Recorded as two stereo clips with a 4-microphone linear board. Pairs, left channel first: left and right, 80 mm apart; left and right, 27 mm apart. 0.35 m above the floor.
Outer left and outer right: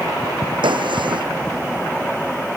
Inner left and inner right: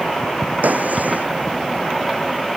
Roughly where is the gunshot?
Right.